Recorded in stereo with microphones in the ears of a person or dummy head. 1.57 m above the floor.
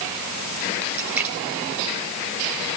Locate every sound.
0.9 s a splash: 5° right (ahead or behind), 4.5 m